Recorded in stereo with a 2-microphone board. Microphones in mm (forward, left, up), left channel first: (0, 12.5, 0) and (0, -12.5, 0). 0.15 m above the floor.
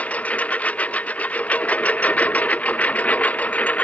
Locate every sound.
0.0 s a lawn mower: 75° left (ahead or behind); by 3.9 s 85° left